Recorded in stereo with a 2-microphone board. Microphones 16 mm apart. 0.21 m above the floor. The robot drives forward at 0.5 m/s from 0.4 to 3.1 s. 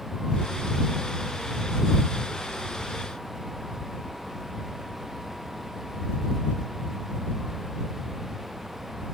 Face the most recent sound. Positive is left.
No sound to turn to.